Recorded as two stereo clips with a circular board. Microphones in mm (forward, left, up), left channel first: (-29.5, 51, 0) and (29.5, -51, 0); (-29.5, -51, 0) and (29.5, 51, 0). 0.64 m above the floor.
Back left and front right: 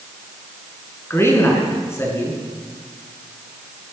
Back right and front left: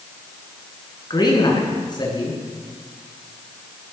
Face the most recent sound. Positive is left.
turn(degrees=-170)